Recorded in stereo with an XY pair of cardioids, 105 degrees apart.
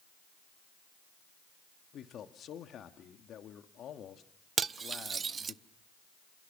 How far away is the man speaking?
About 2 m.